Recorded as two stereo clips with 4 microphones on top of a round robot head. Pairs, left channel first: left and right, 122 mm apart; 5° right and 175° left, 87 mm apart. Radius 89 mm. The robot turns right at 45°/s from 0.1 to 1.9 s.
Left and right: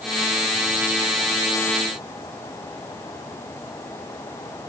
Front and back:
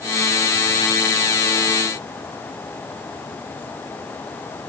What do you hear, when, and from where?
Only background noise.